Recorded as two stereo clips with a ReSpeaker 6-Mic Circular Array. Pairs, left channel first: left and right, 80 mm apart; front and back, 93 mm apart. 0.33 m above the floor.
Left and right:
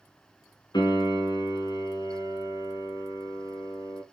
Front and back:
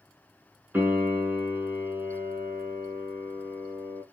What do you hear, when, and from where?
0.7 s a piano: 110° left, 0.8 m